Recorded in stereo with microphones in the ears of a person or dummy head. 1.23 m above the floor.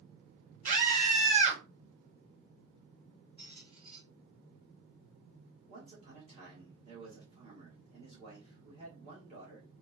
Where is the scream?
45° right (ahead or behind), 1.2 m.